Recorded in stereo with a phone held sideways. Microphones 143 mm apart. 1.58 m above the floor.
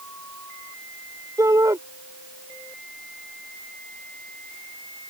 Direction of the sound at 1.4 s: 25° right (ahead or behind).